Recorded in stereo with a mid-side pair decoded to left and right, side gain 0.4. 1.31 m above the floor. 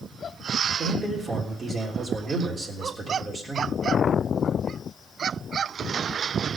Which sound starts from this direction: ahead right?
A man speaking, at 0.8 s.